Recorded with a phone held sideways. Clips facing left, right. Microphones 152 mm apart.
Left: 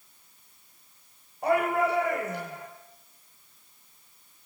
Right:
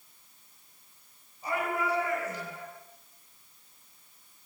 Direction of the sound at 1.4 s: 75° left (ahead or behind).